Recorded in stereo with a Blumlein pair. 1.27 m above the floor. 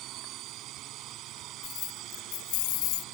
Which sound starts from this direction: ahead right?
A drone, at 0.0 s.